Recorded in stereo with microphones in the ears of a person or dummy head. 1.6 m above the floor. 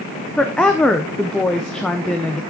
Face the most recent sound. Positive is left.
turn(degrees=0)  # may be behind; listen again after turning